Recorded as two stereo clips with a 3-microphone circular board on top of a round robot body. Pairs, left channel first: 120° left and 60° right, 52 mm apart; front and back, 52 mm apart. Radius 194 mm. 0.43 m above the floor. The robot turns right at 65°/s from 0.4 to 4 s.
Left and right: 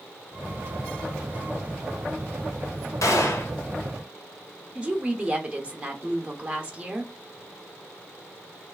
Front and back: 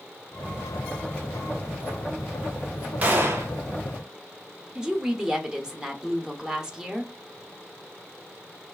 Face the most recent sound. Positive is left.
turn(degrees=-110)